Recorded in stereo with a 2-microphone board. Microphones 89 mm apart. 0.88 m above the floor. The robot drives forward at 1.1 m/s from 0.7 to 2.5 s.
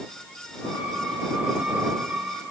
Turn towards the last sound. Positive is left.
No sound to turn to.